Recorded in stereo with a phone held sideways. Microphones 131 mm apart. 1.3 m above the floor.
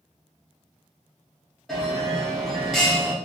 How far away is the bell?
About 0.7 m.